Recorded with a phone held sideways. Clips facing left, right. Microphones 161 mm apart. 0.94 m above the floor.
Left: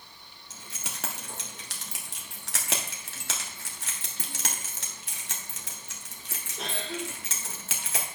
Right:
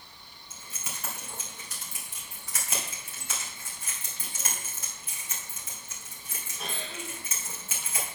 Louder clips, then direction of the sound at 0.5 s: Left 1 dB; 80° left.